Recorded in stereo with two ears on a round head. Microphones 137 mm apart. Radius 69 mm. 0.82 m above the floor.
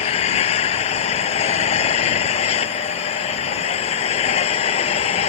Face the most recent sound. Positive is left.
turn(degrees=40)  # may be behind; listen again after turning